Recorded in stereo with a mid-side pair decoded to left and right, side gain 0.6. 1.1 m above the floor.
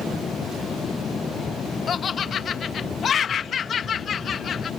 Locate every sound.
0.0 s a fan: 30° left
1.9 s laughter: 40° left